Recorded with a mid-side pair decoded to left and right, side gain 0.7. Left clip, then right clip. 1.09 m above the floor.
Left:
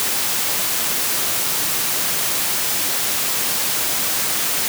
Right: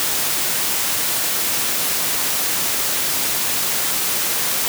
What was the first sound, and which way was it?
Only background noise.